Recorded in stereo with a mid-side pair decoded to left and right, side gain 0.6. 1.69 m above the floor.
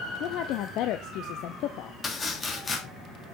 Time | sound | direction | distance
0.2 | a woman speaking | 65° left | 0.7 m
2.0 | chopping | 30° left | 3 m